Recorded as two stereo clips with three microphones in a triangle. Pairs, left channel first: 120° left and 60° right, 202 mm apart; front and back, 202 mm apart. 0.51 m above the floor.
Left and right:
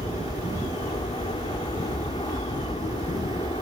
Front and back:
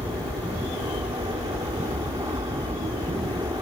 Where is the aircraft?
140° left.